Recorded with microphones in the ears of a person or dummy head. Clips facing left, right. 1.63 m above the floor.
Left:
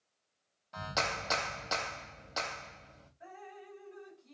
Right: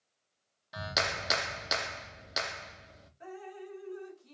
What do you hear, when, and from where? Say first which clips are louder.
0.7 s a clap: right 1 dB; 25° right (ahead or behind), 0.6 m
3.2 s dripping: right 6 dB; 50° right (ahead or behind), 1.0 m